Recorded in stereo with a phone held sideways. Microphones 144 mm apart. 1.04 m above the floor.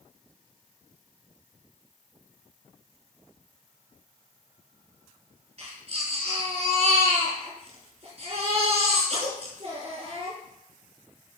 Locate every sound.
5.6 s a baby crying: 45° right (ahead or behind), 7.5 m